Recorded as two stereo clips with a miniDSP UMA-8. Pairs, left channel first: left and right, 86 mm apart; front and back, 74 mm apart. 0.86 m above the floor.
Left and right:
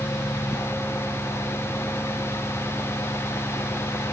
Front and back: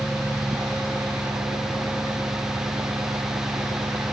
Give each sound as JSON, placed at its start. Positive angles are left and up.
{"t": 0.0, "sound": "an engine running", "azimuth_deg": 145}